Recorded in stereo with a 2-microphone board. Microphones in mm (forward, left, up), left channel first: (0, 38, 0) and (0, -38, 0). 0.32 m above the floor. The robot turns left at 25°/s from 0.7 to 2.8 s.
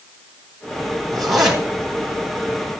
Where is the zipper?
5° left (ahead or behind), 1.9 m; by 2.6 s 25° right (ahead or behind), 1.9 m.